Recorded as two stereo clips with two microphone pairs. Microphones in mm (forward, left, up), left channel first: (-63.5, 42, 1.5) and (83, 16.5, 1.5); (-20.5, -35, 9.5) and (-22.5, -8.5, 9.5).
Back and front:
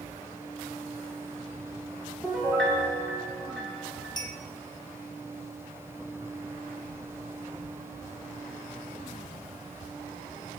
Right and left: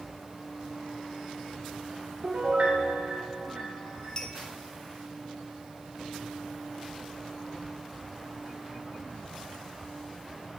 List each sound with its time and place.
2.2 s a piano: 85° left, 2 m
4.2 s a clink: 135° right, 0.9 m